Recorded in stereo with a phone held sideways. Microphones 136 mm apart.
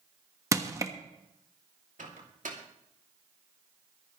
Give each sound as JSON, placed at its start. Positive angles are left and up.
{"t": 0.5, "sound": "crushing", "side_deg": -25, "distance_m": 1.2}
{"t": 2.0, "sound": "a microwave", "side_deg": -80, "distance_m": 2.5}